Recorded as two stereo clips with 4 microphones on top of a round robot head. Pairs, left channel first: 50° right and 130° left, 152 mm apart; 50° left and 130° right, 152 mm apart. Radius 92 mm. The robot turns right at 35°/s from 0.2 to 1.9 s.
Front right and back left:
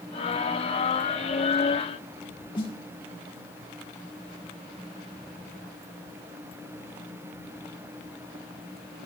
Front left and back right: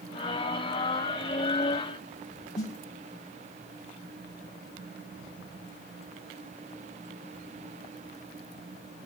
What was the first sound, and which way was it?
A snare drum, 10° left.